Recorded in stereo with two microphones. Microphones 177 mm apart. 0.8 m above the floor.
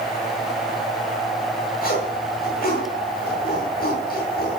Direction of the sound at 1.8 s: 55° left (ahead or behind).